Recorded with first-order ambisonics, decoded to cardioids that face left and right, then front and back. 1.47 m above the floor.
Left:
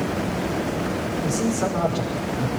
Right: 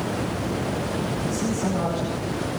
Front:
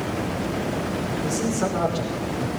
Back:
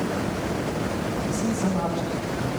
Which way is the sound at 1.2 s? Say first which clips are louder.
Left 3 dB, front 2 dB; 30° left.